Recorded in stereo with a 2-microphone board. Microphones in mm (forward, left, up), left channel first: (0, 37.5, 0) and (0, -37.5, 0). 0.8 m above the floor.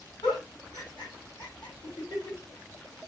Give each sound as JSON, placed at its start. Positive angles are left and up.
{"t": 0.2, "sound": "a giggle", "side_deg": 85, "distance_m": 3.5}